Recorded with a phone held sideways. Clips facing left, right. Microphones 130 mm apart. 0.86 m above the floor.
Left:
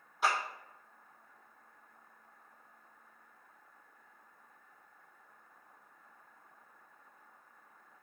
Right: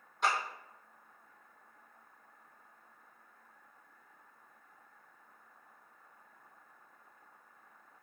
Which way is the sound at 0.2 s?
5° left (ahead or behind).